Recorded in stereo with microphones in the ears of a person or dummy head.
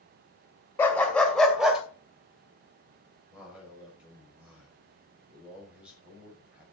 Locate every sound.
0.8 s a dog barking: 10° left (ahead or behind), 2.5 m; by 1.8 s 5° right (ahead or behind), 2.5 m
3.3 s a man speaking: 5° right (ahead or behind), 6 m